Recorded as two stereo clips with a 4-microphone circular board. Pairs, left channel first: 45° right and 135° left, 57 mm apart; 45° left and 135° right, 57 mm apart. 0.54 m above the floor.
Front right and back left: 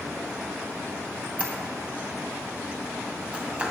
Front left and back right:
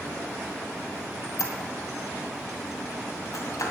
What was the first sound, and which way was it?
A squeak, 65° left.